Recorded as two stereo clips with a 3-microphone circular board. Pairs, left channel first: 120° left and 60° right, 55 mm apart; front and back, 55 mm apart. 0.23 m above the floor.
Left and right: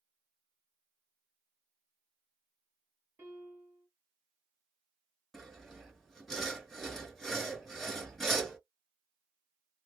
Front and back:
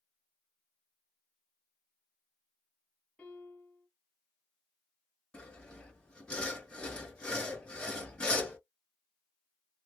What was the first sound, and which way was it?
A piano, 80° right.